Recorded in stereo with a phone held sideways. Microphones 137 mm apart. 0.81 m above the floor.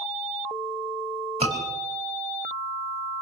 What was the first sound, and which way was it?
A scream, 50° right (ahead or behind).